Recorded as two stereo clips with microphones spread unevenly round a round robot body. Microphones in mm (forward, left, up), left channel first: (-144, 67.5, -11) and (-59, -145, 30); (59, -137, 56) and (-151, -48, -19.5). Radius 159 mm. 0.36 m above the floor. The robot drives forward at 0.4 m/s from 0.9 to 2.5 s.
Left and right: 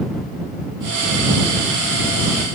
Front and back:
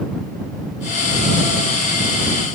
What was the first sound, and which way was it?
Only background noise.